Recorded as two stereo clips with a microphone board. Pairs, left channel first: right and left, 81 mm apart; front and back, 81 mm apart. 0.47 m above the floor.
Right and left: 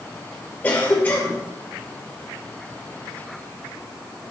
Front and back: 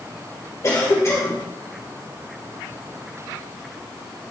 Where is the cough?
30° right, 1.6 m.